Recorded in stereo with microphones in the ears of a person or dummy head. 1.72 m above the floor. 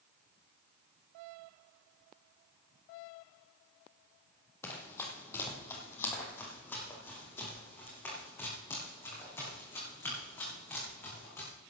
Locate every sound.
4.6 s running footsteps: 15° left (ahead or behind), 2.5 m; by 11.5 s 20° left (ahead or behind), 7 m